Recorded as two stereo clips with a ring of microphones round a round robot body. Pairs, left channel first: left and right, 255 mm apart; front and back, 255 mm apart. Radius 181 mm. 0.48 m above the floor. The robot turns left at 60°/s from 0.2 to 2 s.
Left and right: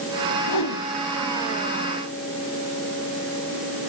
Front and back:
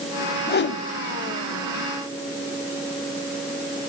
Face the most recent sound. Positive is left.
turn(degrees=-30)